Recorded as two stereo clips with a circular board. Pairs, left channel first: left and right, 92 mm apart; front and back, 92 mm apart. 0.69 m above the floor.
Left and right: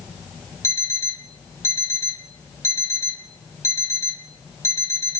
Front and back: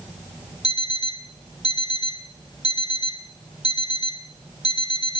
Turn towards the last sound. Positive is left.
turn(degrees=30)